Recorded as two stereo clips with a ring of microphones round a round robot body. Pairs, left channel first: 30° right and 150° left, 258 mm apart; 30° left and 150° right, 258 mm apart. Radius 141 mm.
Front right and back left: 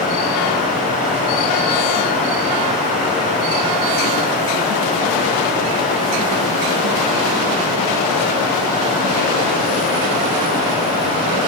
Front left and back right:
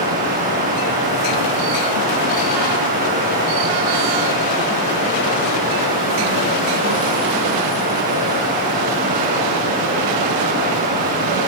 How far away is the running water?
About 9.5 m.